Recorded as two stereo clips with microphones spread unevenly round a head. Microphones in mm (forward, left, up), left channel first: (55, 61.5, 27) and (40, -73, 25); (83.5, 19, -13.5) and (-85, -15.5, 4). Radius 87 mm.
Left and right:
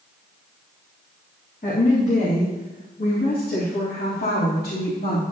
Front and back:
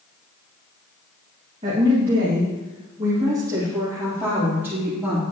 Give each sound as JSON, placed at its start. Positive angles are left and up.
{"t": 1.6, "sound": "a woman speaking", "azimuth_deg": 135, "distance_m": 1.8}